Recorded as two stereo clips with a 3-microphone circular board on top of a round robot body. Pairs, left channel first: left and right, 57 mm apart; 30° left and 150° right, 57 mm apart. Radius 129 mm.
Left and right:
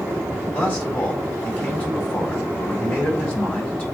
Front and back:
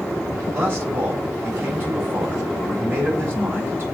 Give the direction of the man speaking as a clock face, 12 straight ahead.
7 o'clock.